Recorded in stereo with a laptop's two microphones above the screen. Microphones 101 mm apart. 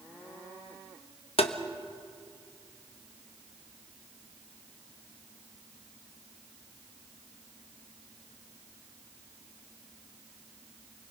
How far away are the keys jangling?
I don't hear keys jangling.